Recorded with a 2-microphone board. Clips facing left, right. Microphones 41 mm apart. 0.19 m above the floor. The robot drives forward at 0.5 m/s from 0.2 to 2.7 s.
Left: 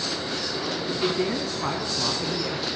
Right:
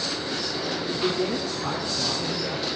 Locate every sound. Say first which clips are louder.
0.9 s a man speaking: left 1 dB; 35° left (ahead or behind), 1.1 m; by 2.7 s 25° left (ahead or behind), 1.4 m